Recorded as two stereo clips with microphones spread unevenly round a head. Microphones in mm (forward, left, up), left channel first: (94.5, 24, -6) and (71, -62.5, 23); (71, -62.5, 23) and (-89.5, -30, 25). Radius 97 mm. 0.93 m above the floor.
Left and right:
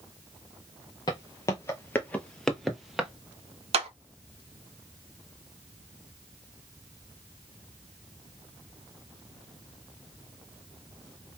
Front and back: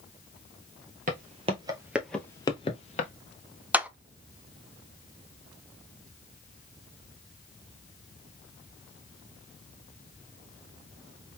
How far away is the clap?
About 0.8 m.